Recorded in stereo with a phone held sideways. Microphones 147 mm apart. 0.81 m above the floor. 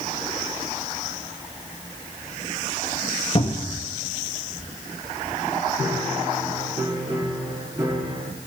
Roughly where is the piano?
Right.